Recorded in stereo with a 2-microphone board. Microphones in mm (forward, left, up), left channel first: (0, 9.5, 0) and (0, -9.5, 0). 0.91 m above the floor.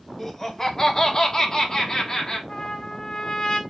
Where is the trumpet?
30° left (ahead or behind), 0.7 m.